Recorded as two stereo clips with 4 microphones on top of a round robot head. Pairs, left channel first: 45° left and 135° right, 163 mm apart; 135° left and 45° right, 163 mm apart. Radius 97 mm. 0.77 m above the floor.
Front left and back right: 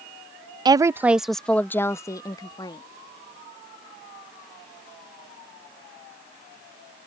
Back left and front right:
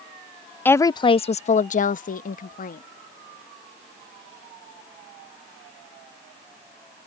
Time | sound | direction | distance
0.7 | a woman speaking | 160° right | ?